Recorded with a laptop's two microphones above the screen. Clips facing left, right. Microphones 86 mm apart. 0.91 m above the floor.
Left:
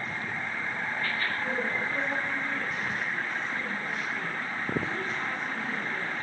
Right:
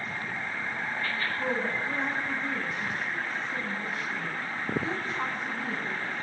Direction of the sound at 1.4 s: 35° right (ahead or behind).